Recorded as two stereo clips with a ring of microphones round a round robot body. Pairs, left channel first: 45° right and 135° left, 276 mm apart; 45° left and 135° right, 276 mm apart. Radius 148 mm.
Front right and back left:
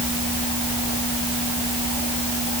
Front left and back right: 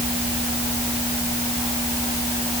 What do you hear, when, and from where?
Only background noise.